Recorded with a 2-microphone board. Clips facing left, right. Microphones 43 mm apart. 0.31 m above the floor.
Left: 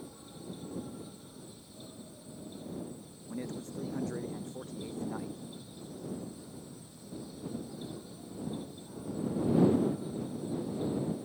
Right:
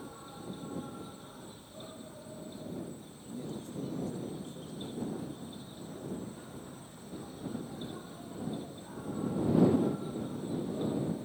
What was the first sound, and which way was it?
An insect, 45° right (ahead or behind).